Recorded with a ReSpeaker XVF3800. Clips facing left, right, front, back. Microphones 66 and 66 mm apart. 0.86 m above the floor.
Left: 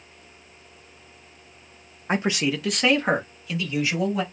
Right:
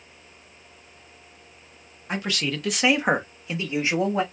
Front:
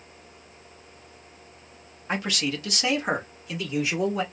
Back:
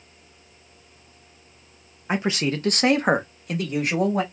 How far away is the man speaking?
About 0.6 m.